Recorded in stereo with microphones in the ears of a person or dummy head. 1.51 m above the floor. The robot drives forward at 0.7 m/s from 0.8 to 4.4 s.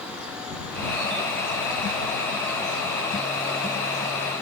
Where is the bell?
I don't hear a bell.